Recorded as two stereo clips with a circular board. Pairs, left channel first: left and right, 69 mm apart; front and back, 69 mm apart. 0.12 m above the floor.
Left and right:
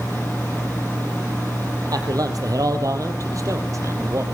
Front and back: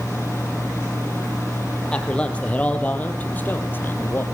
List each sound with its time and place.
1.9 s a man speaking: 75° right, 4.5 m; by 4.2 s 50° right, 4 m